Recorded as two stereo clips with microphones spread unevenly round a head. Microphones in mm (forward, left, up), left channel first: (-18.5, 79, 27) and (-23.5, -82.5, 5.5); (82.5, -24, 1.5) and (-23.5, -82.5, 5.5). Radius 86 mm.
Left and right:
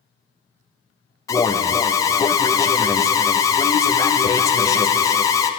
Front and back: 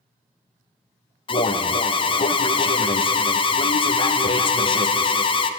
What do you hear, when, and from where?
1.3 s an alarm: 15° left, 0.5 m